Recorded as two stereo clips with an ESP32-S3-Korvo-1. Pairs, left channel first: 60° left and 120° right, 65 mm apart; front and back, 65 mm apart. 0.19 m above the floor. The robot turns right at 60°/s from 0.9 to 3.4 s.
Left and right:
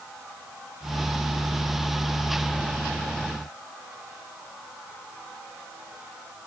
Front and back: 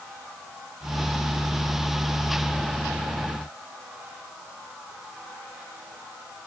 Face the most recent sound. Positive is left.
No sound to turn to.